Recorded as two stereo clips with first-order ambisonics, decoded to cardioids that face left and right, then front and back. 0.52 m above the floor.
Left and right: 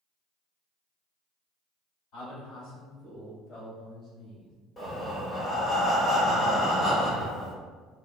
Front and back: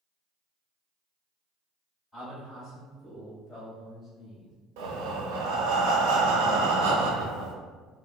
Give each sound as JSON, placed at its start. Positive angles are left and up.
{"t": 2.1, "sound": "a man speaking", "azimuth_deg": 90, "distance_m": 2.0}
{"t": 4.8, "sound": "breathing", "azimuth_deg": 170, "distance_m": 0.6}